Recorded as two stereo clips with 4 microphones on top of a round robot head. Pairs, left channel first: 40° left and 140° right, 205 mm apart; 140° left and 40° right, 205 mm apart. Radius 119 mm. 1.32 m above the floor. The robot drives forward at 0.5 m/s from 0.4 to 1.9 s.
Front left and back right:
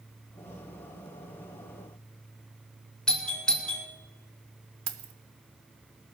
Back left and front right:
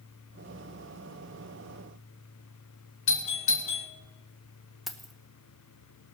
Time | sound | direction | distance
3.1 | a doorbell | 125° left | 1.9 m
4.9 | keys jangling | 130° right | 0.9 m